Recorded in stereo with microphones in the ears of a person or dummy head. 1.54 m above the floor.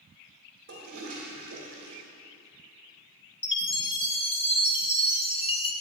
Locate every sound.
0.7 s a toilet flushing: 45° right (ahead or behind), 3 m
3.4 s a chime: 30° left (ahead or behind), 0.8 m